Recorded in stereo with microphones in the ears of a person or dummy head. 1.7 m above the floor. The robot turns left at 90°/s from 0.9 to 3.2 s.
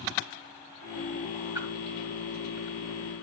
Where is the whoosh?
15° right (ahead or behind), 3.5 m; by 1.7 s 5° right (ahead or behind), 3.5 m.